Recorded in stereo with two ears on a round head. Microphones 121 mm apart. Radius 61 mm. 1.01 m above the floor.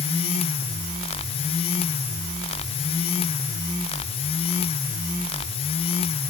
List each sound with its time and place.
Only background noise.